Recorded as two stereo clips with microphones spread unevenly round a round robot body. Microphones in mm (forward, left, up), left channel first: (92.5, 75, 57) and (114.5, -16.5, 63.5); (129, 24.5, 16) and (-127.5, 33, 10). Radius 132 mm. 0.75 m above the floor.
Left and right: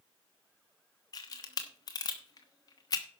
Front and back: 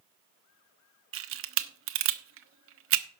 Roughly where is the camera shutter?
Behind left.